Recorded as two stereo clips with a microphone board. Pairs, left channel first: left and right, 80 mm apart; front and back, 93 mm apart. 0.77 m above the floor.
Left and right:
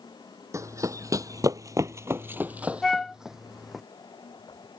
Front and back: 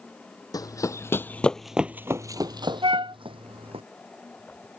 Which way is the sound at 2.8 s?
175° left.